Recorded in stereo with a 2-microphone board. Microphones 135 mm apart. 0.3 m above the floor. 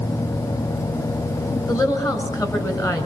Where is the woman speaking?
30° left (ahead or behind), 4 m.